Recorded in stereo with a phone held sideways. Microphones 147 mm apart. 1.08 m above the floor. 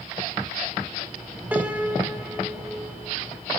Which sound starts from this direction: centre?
A piano, at 1.5 s.